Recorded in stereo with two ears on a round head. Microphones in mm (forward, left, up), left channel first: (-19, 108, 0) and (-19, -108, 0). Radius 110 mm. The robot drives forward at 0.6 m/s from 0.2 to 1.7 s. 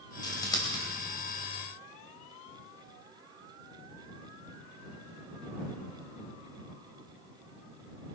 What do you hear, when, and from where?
0.2 s scissors: 20° left (ahead or behind), 3 m; by 0.8 s 15° left (ahead or behind), 3.5 m